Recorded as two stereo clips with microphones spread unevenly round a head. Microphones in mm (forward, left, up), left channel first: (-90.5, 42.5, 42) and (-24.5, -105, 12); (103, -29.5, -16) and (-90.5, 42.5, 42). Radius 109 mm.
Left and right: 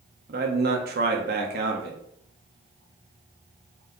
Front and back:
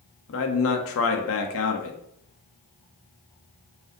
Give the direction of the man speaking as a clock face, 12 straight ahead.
1 o'clock.